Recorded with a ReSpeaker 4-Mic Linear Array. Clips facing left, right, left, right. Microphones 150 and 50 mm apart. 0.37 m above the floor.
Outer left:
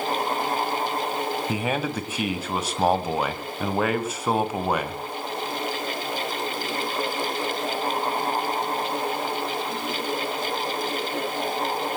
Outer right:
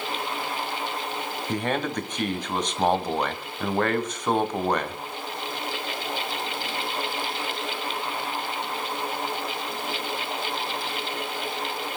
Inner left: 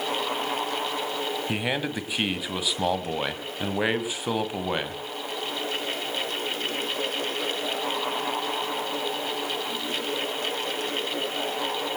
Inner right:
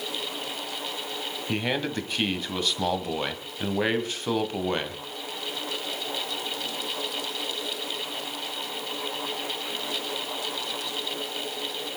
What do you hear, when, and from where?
1.5 s a man speaking: 5° left (ahead or behind), 2.0 m